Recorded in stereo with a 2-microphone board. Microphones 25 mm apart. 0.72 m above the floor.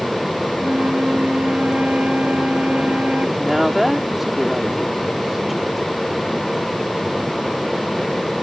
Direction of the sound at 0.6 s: 75° right (ahead or behind).